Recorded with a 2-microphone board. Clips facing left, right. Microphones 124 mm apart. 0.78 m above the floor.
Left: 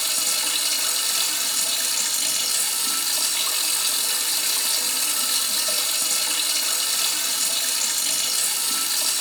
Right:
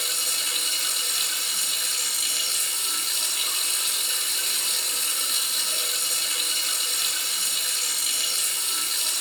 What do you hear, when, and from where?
0.0 s running water: 85° left, 2.5 m